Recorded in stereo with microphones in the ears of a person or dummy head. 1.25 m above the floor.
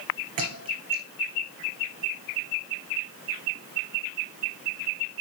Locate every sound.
0.4 s a thud: 40° right (ahead or behind), 4 m